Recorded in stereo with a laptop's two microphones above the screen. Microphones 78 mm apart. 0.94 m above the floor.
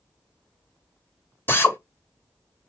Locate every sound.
1.5 s a drill: 25° left (ahead or behind), 1.3 m